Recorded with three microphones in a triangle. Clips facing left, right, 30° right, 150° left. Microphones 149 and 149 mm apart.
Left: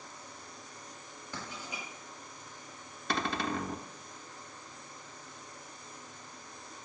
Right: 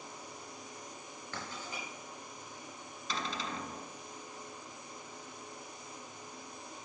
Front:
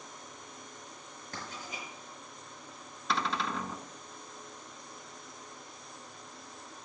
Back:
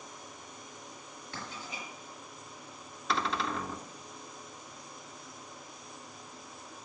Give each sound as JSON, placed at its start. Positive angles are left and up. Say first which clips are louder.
{"t": 1.3, "sound": "writing", "louder": "left 1 dB, even", "azimuth_deg": 15, "distance_m": 6.0}
{"t": 3.1, "sound": "a cupboard door", "louder": "left 6 dB, back 1 dB", "azimuth_deg": 60, "distance_m": 0.9}